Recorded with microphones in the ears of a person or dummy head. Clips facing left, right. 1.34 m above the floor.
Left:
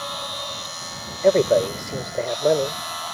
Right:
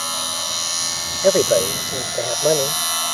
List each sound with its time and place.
0.0 s a machine running: 55° right (ahead or behind)
1.2 s a man speaking: centre (ahead or behind)